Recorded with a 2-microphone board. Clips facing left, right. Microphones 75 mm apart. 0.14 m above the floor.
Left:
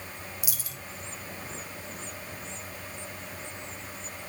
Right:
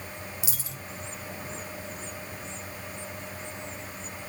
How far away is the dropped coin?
About 1.5 m.